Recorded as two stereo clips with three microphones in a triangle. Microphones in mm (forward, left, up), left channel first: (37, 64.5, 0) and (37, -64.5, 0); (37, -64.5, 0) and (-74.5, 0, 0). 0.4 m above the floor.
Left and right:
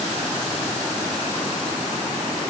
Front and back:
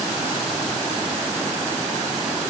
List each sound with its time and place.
Only background noise.